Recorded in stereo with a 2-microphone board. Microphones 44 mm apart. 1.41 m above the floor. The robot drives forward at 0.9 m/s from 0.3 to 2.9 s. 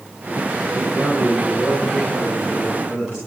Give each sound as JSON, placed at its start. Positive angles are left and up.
{"t": 0.7, "sound": "a man speaking", "side_deg": -20, "distance_m": 10.0}